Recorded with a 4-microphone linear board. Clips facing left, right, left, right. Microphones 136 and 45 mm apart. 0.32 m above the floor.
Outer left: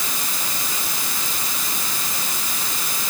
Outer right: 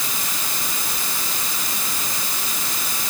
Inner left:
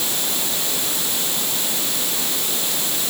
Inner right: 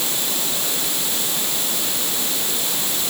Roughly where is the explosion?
I don't hear an explosion.